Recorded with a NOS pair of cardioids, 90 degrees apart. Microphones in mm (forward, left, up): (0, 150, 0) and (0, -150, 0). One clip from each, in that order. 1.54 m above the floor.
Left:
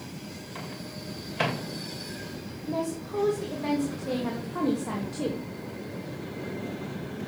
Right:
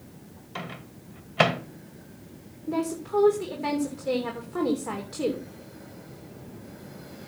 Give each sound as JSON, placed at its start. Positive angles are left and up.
{"t": 0.6, "sound": "a microwave", "azimuth_deg": -45, "distance_m": 2.0}
{"t": 2.7, "sound": "a woman speaking", "azimuth_deg": -20, "distance_m": 3.0}